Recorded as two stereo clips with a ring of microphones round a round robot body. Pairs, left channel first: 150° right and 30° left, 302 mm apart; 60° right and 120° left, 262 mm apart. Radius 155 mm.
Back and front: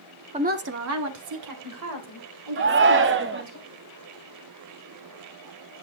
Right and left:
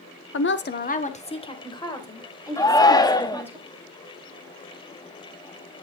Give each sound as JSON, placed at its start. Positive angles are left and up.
{"t": 0.3, "sound": "a woman speaking", "azimuth_deg": -35, "distance_m": 1.1}
{"t": 2.6, "sound": "a shout", "azimuth_deg": 10, "distance_m": 0.8}